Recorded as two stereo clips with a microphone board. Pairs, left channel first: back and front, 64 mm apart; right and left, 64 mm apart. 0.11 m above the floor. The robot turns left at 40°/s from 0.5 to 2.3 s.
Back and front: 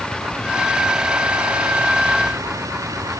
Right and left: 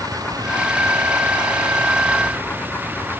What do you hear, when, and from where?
0.0 s a vehicle: 105° left; by 3.2 s 30° left